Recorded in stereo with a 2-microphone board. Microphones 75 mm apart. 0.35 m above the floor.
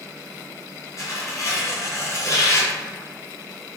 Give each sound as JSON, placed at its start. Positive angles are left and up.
{"t": 1.0, "sound": "tearing paper", "side_deg": 45, "distance_m": 1.0}